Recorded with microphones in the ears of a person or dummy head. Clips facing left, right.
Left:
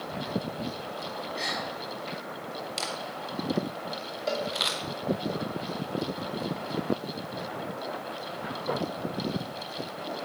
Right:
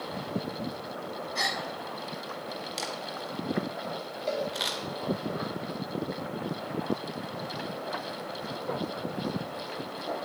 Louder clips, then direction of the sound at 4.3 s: Even; 15° left (ahead or behind).